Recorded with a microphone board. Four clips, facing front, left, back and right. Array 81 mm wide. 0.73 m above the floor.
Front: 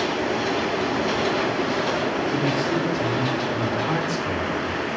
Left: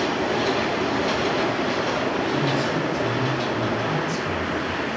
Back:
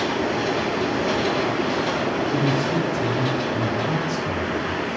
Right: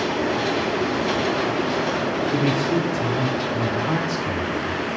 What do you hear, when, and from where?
2.3 s a man speaking: 80° right, 1.8 m; by 4.8 s 20° right, 2.5 m